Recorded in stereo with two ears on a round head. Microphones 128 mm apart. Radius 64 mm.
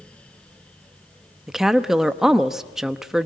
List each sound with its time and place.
1.5 s a woman speaking: 5° right (ahead or behind), 0.8 m